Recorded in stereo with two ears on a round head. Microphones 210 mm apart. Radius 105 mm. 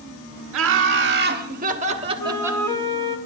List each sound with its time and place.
0.5 s laughter: 55° right (ahead or behind), 1.6 m; by 2.6 s 5° right (ahead or behind), 1.1 m
2.2 s a flute: 10° left (ahead or behind), 1.1 m